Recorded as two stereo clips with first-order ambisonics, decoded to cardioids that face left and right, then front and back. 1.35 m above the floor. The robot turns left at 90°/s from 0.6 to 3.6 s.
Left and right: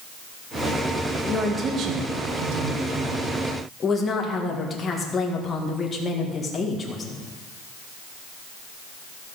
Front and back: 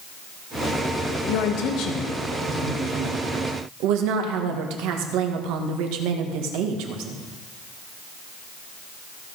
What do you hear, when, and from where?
1.3 s a woman speaking: 10° left, 1.8 m; by 7.2 s 160° left, 1.8 m